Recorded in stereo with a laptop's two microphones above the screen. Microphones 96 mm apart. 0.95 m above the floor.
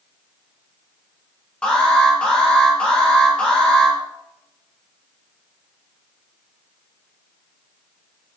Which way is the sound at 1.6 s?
10° left (ahead or behind).